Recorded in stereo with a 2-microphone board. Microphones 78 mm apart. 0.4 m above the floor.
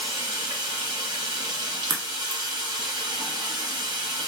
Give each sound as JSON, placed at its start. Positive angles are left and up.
{"t": 0.0, "sound": "running water", "side_deg": -60, "distance_m": 1.1}
{"t": 1.9, "sound": "a crack", "side_deg": -50, "distance_m": 0.6}